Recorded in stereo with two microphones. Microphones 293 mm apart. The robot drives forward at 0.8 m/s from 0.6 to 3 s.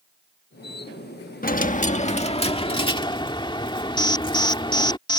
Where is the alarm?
15° left (ahead or behind).